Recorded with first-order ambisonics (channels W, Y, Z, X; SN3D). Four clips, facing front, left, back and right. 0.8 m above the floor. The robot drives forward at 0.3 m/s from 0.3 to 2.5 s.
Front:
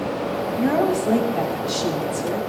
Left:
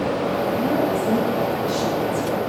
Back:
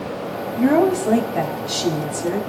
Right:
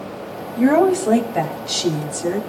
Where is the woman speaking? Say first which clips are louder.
Right 5 dB, back 5 dB; 110° right, 2 m; by 2.4 s 125° right, 2 m.